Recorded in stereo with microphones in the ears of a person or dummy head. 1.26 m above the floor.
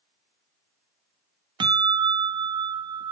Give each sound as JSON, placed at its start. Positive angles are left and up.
{"t": 1.6, "sound": "a bell", "side_deg": -25, "distance_m": 0.6}